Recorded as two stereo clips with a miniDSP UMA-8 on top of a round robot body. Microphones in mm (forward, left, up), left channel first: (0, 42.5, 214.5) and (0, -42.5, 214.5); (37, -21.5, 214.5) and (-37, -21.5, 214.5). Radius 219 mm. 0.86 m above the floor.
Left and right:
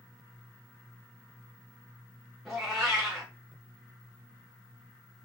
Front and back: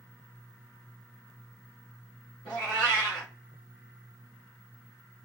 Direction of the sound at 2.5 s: 5° right.